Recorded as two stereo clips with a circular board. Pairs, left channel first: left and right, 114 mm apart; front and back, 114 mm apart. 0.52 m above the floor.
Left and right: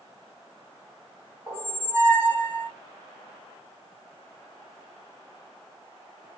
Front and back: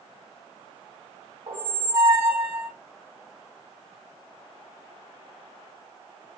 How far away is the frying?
No frying in this recording.